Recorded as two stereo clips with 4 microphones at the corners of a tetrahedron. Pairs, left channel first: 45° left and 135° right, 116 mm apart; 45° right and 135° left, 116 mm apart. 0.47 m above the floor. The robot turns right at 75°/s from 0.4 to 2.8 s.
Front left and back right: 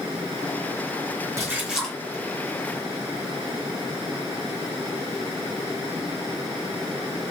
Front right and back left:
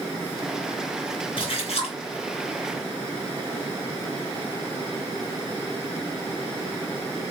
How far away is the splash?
About 1.6 m.